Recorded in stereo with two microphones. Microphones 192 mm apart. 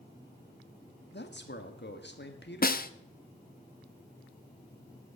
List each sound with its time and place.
1.1 s a man speaking: 55° left (ahead or behind), 1.5 m
2.6 s a snare drum: 45° left (ahead or behind), 0.5 m